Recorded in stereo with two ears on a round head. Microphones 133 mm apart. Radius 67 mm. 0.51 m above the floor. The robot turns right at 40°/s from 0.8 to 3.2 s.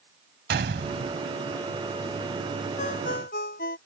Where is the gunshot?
75° right (ahead or behind); by 1.2 s 80° right.